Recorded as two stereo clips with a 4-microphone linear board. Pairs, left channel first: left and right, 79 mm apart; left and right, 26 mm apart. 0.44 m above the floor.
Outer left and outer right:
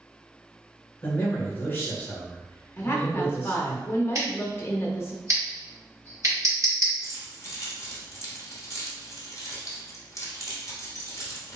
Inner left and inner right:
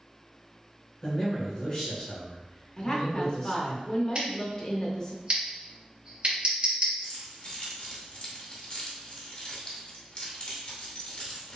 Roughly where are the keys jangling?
Left.